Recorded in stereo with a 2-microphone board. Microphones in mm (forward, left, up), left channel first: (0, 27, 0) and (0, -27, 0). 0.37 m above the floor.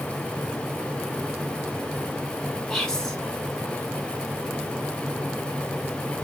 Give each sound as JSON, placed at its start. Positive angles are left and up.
{"t": 2.7, "sound": "whispering", "side_deg": 10, "distance_m": 0.8}